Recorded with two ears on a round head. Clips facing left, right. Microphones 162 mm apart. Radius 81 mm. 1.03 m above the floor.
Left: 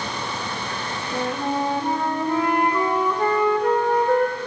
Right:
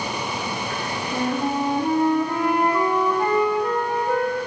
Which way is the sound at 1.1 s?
25° right (ahead or behind).